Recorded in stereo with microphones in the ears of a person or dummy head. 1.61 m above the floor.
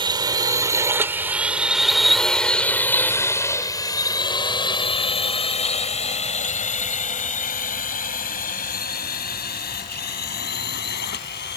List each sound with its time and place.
0.0 s a drone: 25° right (ahead or behind); by 11.6 s 55° left (ahead or behind)